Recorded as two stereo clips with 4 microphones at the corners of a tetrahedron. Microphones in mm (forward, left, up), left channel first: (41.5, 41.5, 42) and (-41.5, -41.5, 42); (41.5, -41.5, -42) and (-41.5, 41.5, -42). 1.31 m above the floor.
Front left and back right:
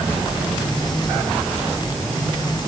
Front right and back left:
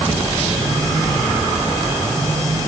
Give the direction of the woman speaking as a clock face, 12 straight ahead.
No woman speaking in this recording.